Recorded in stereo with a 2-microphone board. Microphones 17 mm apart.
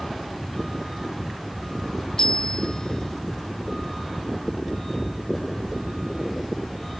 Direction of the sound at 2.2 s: 50° left (ahead or behind).